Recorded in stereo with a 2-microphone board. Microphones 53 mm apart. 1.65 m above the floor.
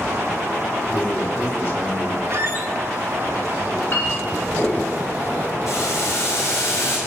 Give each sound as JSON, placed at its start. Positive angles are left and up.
{"t": 0.9, "sound": "a man speaking", "side_deg": 45, "distance_m": 4.0}
{"t": 2.3, "sound": "a squeak", "side_deg": -50, "distance_m": 1.1}
{"t": 3.6, "sound": "a clink", "side_deg": 45, "distance_m": 6.5}
{"t": 5.7, "sound": "boiling", "side_deg": 70, "distance_m": 8.0}